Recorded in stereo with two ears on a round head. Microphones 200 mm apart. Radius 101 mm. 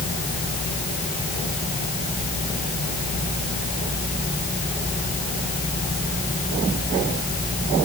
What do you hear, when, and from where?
Only background noise.